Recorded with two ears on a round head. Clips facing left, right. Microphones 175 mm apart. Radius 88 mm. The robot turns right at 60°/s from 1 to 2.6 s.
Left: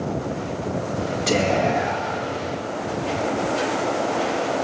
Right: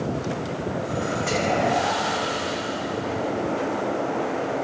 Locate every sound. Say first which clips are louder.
1.3 s whispering: left 4 dB; 105° left, 1.0 m; by 2.3 s 165° left, 1.0 m